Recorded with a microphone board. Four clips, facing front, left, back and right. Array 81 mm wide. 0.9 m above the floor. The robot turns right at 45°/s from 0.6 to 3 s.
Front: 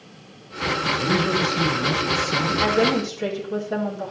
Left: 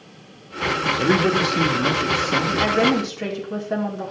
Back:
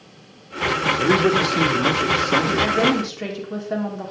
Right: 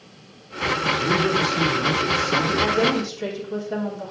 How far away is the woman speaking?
About 2.5 m.